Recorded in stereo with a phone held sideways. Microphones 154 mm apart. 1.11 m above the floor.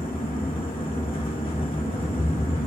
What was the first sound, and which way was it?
A fan, 35° left (ahead or behind).